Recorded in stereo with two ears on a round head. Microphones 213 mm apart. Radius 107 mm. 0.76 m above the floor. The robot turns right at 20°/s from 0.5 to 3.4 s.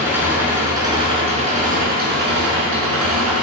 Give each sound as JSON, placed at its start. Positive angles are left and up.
{"t": 0.0, "sound": "an engine running", "azimuth_deg": -170, "distance_m": 4.5}